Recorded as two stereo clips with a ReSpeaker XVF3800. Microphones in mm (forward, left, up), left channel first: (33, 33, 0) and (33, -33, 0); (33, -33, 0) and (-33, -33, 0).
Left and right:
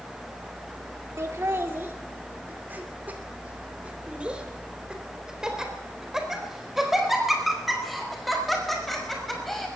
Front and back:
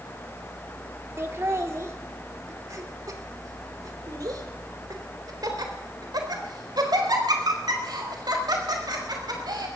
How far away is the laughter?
About 2.5 m.